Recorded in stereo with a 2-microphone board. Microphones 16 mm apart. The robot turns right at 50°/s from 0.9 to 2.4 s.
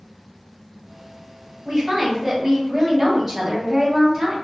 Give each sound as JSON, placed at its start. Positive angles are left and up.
{"t": 1.6, "sound": "a woman speaking", "azimuth_deg": -75, "distance_m": 1.9}